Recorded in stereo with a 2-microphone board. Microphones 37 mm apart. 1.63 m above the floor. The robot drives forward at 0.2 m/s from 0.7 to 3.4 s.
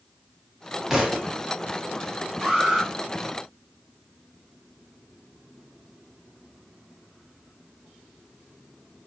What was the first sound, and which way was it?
A thud, 15° right (ahead or behind).